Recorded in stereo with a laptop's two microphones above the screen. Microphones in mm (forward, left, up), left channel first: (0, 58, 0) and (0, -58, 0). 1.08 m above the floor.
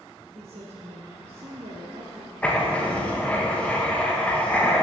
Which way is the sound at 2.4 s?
15° left (ahead or behind).